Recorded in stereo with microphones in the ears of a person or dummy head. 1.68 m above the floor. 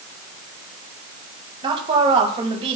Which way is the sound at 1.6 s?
25° right (ahead or behind).